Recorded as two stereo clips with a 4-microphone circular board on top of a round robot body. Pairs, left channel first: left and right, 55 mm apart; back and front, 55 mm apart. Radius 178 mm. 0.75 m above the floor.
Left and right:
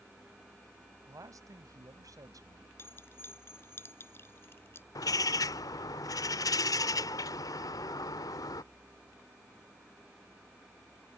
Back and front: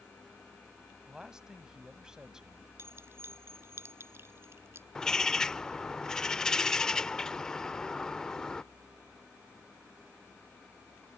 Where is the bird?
100° left.